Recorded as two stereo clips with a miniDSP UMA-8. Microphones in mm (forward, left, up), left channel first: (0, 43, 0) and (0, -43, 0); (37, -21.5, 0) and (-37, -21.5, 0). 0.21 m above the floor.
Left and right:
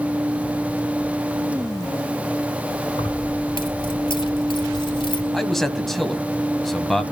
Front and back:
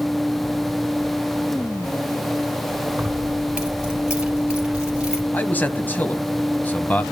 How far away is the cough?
I don't hear a cough.